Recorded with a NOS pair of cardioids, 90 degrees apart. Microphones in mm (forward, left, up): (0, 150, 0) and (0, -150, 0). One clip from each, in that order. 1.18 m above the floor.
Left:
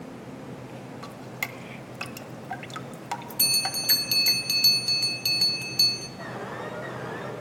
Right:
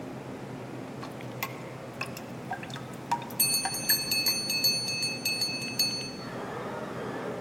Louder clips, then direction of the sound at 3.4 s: Left 5 dB; 30° left.